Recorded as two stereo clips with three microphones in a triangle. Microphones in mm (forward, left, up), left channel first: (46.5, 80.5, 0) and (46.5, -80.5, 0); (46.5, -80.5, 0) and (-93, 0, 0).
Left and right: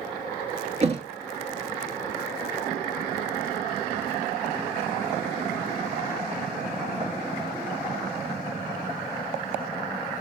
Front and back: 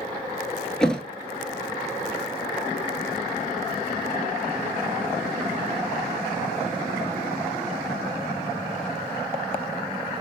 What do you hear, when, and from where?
0.8 s a thud: 115° right, 0.9 m